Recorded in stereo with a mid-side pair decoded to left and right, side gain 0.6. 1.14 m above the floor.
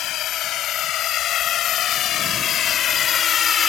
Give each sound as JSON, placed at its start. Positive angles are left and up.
{"t": 0.0, "sound": "a drone", "azimuth_deg": 60}